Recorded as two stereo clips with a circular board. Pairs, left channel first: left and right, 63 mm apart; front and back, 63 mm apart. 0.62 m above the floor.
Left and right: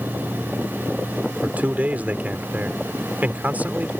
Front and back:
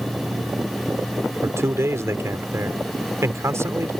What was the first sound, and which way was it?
A man speaking, 150° right.